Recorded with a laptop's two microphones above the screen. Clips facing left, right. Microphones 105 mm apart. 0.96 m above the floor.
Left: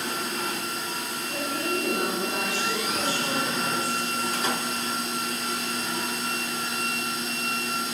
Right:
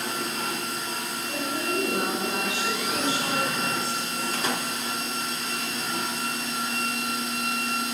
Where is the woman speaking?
10° right (ahead or behind), 10 m; by 4.7 s 30° right (ahead or behind), 7.5 m.